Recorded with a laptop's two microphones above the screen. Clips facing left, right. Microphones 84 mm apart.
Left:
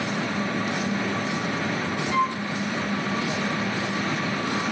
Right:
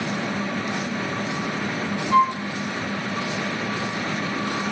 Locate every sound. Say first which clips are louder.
2.1 s a flute: right 7 dB; 40° right (ahead or behind), 0.8 m